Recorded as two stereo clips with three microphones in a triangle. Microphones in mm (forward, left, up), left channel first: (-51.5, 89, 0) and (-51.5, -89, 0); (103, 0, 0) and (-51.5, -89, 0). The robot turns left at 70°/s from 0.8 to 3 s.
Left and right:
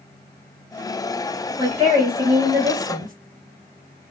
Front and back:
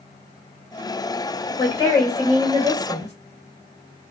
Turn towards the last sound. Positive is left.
turn(degrees=-125)